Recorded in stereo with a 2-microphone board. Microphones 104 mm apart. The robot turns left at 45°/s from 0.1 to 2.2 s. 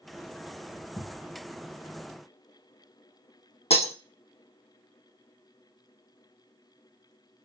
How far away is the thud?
About 0.7 m.